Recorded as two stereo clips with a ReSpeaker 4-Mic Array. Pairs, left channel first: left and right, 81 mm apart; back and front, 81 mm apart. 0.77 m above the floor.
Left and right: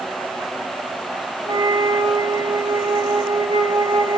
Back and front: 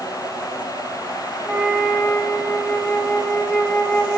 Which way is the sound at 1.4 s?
90° right.